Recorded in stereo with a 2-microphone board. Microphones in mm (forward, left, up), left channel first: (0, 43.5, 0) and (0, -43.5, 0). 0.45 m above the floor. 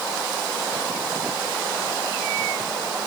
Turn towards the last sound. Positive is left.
No sound to turn to.